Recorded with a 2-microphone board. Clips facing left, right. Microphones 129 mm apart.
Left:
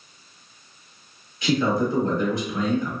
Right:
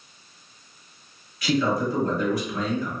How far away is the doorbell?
I don't hear a doorbell.